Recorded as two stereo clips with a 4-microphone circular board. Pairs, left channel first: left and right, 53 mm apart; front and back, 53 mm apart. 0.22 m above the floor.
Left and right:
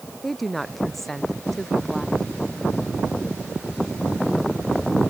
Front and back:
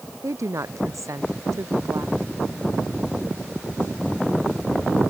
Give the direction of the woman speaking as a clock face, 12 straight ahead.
6 o'clock.